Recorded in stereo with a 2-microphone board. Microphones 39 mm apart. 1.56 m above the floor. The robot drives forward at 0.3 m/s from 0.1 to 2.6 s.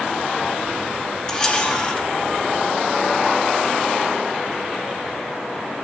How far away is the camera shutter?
About 2.5 m.